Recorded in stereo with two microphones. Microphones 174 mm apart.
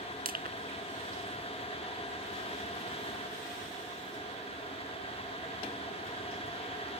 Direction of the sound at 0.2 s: 60° right (ahead or behind).